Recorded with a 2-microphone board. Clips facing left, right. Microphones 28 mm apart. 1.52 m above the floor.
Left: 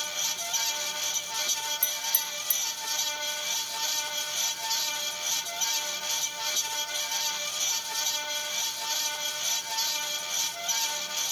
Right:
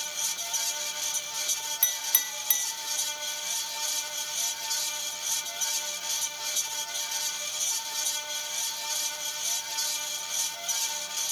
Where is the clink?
45° right (ahead or behind), 0.6 m.